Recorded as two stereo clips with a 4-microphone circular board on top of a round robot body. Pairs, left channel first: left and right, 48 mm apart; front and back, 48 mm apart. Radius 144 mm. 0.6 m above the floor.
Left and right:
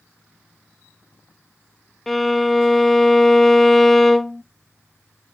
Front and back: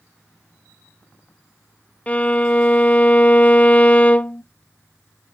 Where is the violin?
10° left, 0.8 m.